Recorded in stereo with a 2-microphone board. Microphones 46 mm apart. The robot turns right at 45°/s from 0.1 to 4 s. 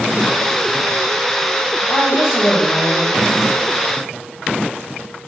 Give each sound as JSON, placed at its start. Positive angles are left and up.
{"t": 1.9, "sound": "a woman speaking", "azimuth_deg": 80, "distance_m": 1.4}